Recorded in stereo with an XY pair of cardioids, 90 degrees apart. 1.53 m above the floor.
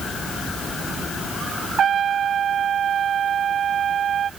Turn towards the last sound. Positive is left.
turn(degrees=-65)